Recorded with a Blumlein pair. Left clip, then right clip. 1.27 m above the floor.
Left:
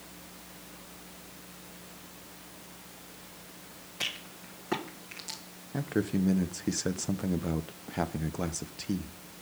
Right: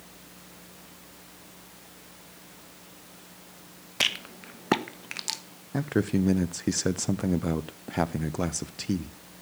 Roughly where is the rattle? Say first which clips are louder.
Right 8 dB; ahead right.